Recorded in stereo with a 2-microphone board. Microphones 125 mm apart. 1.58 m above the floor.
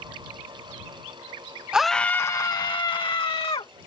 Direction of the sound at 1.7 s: 5° right (ahead or behind).